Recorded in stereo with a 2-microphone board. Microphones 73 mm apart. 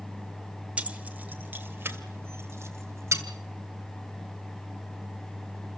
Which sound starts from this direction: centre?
Keys jangling, at 0.8 s.